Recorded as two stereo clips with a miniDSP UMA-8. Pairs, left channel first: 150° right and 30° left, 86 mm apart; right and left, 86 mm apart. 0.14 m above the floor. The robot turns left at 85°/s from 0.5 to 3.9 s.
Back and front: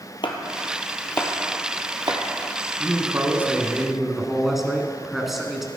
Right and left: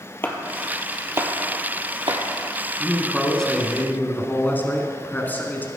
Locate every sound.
0.2 s chopping: 155° right, 1.3 m; by 2.2 s 60° left, 1.3 m
2.8 s a man speaking: 40° left, 1.3 m; by 5.7 s 55° right, 1.3 m